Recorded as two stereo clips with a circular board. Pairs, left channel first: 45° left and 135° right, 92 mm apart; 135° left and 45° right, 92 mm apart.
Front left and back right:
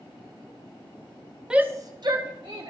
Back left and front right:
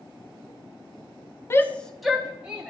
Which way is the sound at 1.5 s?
150° left.